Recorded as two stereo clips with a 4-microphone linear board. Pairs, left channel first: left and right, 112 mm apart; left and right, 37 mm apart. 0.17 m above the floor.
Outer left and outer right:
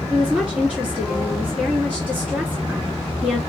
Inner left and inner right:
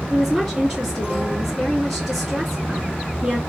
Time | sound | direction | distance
0.1 | a woman speaking | 15° right (ahead or behind) | 2 m